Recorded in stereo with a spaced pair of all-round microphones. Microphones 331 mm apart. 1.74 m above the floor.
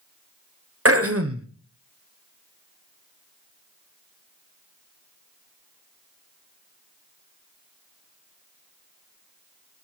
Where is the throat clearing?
45° right (ahead or behind), 1.0 m.